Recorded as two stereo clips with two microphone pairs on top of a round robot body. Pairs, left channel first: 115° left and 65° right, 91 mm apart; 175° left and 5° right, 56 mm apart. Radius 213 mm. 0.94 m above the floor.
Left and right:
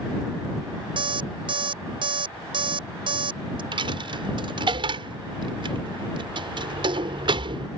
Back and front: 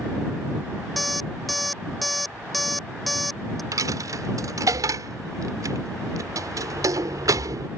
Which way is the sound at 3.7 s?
30° right.